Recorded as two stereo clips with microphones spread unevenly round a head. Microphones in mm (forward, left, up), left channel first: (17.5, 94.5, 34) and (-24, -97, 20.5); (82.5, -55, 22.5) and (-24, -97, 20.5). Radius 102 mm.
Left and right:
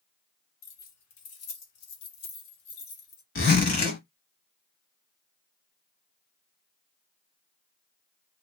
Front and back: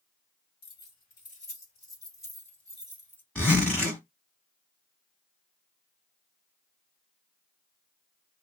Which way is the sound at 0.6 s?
50° left.